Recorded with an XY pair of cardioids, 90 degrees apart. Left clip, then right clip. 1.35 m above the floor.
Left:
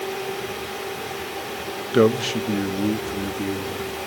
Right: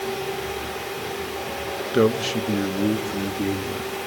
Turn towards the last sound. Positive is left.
turn(degrees=-20)